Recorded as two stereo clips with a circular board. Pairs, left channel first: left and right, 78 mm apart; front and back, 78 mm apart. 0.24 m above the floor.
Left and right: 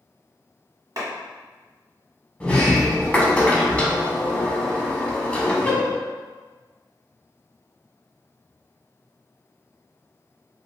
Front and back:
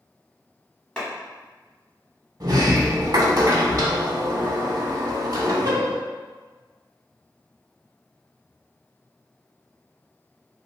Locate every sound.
1.0 s a clap: 75° right, 1.1 m
2.4 s a sliding door: 160° left, 0.5 m